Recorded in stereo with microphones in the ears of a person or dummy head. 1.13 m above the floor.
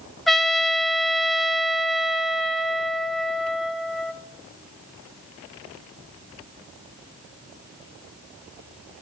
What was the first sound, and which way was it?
A trumpet, 5° left (ahead or behind).